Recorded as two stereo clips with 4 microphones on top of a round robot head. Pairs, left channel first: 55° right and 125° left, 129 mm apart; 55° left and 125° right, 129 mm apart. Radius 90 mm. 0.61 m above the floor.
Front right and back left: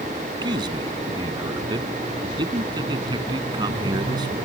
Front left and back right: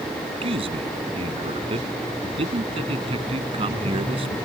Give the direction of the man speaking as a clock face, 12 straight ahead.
6 o'clock.